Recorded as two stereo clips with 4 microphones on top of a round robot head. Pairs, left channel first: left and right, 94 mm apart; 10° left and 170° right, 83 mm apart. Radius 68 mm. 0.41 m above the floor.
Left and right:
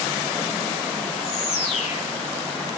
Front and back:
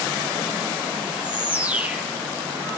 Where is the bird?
115° left, 6 m.